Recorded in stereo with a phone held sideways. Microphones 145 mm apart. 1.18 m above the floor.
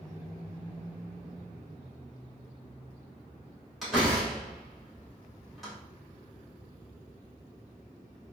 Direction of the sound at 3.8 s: Centre (ahead or behind).